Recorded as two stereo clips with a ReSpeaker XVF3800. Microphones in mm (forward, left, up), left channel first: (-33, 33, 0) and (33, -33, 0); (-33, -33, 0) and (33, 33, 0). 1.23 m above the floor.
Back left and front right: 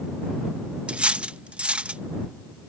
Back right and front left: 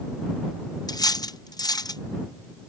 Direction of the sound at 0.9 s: 120° right.